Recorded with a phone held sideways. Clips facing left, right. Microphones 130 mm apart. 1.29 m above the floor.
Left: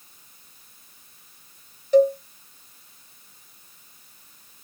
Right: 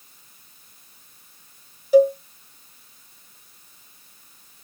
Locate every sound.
1.9 s a cowbell: 10° right (ahead or behind), 0.6 m